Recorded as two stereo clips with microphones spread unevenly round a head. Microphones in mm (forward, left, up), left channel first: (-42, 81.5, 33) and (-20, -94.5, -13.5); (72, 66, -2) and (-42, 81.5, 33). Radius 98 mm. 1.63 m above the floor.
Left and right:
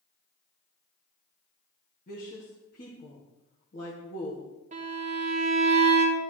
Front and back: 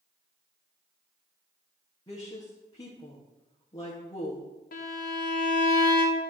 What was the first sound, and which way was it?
A woman speaking, 55° left.